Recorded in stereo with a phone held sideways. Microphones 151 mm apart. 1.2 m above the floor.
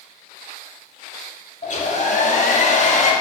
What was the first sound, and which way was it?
A hair dryer, 55° left (ahead or behind).